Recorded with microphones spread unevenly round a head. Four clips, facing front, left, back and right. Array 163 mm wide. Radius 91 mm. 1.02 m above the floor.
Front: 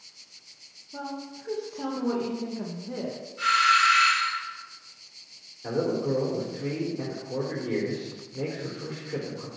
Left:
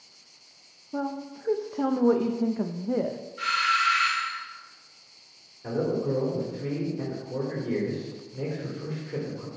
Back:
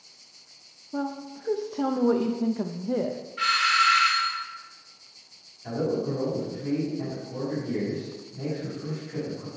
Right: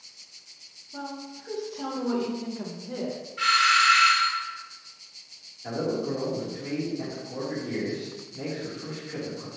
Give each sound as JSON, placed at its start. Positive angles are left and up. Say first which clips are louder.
{"t": 0.9, "sound": "a woman speaking", "louder": "left 6 dB, back 5 dB", "azimuth_deg": 130, "distance_m": 0.6}
{"t": 3.4, "sound": "a doorbell", "louder": "right 4 dB, front 2 dB", "azimuth_deg": 170, "distance_m": 2.5}
{"t": 5.6, "sound": "a man speaking", "louder": "left 1 dB, front 1 dB", "azimuth_deg": 20, "distance_m": 3.0}